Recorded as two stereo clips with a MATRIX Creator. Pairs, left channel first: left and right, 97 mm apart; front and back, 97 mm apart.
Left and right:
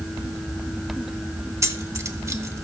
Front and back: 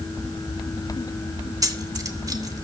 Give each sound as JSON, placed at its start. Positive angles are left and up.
{"t": 1.6, "sound": "keys jangling", "azimuth_deg": -140, "distance_m": 0.8}